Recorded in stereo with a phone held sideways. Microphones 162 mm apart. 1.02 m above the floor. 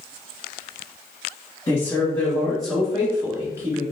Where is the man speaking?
20° left (ahead or behind), 1.7 m; by 3.8 s 25° right (ahead or behind), 2 m.